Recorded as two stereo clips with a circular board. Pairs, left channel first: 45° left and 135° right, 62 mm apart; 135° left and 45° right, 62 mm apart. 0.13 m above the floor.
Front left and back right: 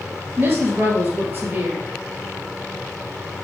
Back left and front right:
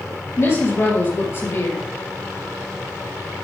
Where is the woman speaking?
175° left, 3 m.